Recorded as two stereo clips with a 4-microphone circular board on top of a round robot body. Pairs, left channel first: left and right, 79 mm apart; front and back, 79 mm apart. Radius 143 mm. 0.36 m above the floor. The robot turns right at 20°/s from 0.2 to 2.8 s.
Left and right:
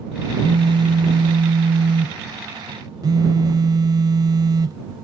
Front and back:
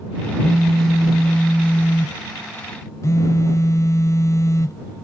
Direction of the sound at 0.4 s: 100° right.